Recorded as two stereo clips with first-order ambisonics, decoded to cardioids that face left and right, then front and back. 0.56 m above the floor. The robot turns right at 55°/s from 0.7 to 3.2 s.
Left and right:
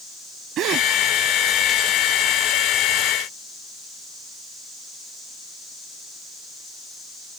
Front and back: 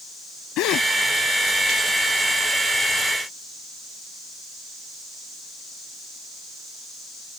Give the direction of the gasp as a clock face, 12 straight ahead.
1 o'clock.